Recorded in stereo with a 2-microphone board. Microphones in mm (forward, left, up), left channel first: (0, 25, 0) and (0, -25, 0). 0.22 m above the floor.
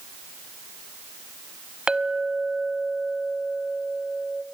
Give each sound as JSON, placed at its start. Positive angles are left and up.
{"t": 1.9, "sound": "a clink", "side_deg": -15, "distance_m": 0.6}